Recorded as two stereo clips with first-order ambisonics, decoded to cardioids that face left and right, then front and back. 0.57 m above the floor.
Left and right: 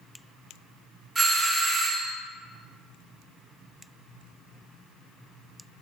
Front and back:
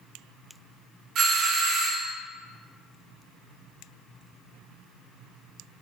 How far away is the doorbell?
About 1.2 m.